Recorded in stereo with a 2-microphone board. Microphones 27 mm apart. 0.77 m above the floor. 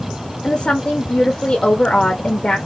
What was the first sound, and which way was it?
A woman speaking, 40° left (ahead or behind).